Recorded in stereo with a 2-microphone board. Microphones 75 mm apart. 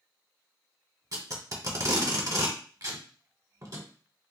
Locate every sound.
1.1 s tape being pulled: 50° right (ahead or behind), 1.0 m